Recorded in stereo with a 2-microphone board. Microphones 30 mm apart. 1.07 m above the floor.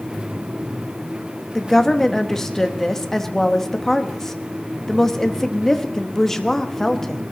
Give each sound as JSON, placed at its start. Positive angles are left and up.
{"t": 1.6, "sound": "a woman speaking", "side_deg": 15, "distance_m": 1.1}